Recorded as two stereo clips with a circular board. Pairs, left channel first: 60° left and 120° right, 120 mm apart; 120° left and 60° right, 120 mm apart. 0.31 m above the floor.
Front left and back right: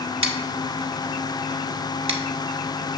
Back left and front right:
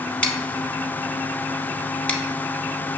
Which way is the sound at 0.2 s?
160° right.